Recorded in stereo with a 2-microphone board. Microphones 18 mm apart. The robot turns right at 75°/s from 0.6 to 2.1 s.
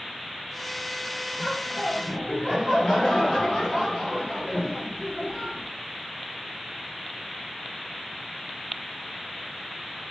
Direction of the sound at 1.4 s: 5° left.